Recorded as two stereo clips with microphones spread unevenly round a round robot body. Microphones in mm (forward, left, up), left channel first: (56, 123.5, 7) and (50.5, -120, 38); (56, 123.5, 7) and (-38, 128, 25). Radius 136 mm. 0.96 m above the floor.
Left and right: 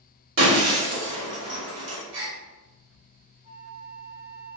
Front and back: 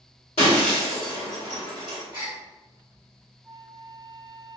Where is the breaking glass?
50° right, 1.2 m.